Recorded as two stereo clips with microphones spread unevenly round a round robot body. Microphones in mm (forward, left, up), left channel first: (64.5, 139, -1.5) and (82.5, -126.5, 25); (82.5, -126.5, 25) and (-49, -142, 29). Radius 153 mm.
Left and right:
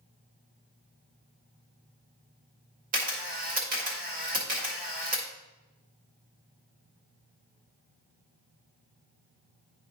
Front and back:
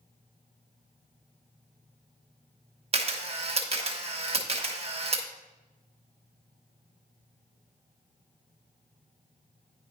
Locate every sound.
2.9 s a camera shutter: 145° right, 1.3 m